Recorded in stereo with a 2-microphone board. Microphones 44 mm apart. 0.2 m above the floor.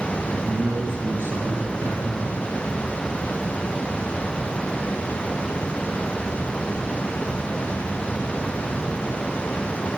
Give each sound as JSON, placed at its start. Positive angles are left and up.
{"t": 0.3, "sound": "a man speaking", "side_deg": -60, "distance_m": 2.5}